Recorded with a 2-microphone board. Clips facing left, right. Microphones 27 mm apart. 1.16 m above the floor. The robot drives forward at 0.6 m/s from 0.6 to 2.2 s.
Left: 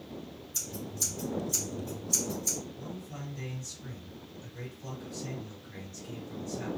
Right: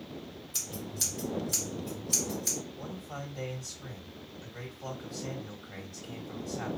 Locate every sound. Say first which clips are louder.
0.5 s scissors: even; 75° right (ahead or behind), 1.6 m; by 2.6 s 60° right (ahead or behind), 1.7 m
2.8 s a man speaking: right 1 dB; 65° right (ahead or behind), 2 m